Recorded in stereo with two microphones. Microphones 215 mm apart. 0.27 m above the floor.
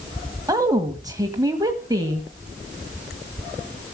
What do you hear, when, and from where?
0.5 s a woman speaking: 15° right (ahead or behind), 1.5 m